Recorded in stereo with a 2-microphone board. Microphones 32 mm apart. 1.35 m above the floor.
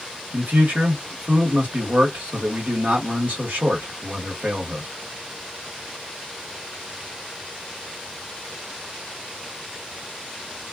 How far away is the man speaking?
About 1.4 m.